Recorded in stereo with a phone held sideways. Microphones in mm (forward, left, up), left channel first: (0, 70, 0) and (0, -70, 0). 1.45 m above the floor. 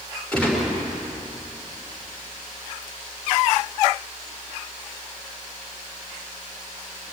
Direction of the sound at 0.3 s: 10° left (ahead or behind).